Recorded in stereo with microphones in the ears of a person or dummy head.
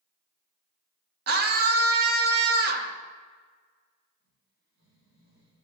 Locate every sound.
1.3 s a scream: 55° right (ahead or behind), 0.9 m
4.2 s snoring: 70° right (ahead or behind), 2.5 m